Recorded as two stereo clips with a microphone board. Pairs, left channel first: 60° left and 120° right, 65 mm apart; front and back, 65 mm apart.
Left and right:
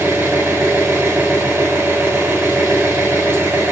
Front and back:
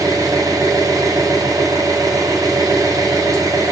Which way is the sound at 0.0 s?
175° right.